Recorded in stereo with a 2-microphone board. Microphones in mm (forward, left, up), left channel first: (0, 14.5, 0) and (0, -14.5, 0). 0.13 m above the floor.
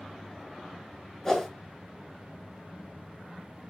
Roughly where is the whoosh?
Centre.